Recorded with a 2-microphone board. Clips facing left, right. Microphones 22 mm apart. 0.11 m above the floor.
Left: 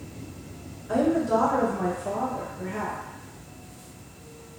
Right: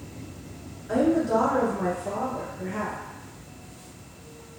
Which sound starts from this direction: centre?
A woman speaking, at 0.9 s.